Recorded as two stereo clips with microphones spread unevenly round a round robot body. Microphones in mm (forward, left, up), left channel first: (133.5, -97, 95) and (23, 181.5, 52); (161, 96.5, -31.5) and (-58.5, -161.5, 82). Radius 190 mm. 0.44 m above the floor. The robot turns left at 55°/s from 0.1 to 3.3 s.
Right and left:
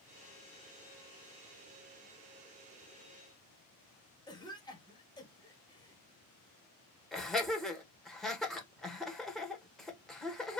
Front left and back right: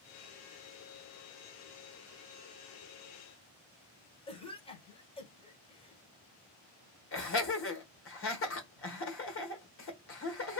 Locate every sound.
4.3 s a cough: 10° left, 1.7 m
7.1 s laughter: 25° left, 1.5 m